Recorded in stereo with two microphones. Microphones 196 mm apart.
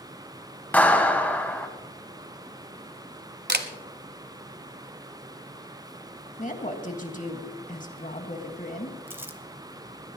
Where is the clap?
10° left (ahead or behind), 1.4 m.